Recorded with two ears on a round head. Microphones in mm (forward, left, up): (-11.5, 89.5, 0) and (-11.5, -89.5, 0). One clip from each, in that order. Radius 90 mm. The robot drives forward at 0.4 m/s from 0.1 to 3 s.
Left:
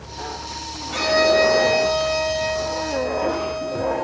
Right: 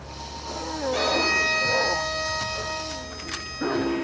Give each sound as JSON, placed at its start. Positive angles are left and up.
{"t": 0.9, "sound": "a violin", "side_deg": 30, "distance_m": 3.5}